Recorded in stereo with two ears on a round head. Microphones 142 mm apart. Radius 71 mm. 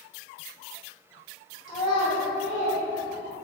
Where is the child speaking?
25° left (ahead or behind), 1.1 m; by 3.4 s 50° left (ahead or behind), 1.2 m.